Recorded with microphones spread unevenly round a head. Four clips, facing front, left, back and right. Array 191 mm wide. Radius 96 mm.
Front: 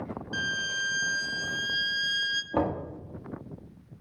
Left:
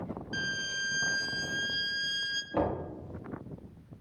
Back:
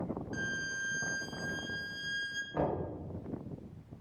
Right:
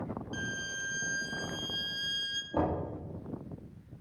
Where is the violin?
5° left, 0.7 m.